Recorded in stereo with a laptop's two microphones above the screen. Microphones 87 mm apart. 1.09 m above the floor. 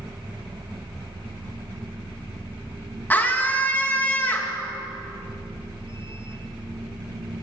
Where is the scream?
20° left (ahead or behind), 1.3 m.